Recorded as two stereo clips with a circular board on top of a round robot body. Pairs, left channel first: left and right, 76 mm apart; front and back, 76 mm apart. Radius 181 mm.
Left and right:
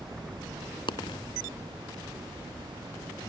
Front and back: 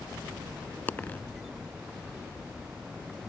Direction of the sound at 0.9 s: 70° left.